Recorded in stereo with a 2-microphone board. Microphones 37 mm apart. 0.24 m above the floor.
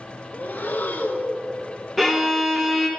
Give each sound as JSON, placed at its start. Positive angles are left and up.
{"t": 0.3, "sound": "breathing", "side_deg": 55, "distance_m": 0.6}
{"t": 2.0, "sound": "a violin", "side_deg": 0, "distance_m": 1.0}